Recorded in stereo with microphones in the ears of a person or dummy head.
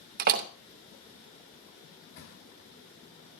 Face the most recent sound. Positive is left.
turn(degrees=70)  # may be behind; listen again after turning